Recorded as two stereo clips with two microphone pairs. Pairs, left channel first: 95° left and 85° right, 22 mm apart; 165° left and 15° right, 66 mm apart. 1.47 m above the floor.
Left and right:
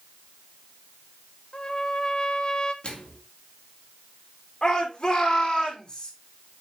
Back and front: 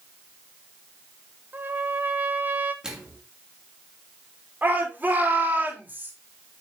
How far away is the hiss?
I don't hear a hiss.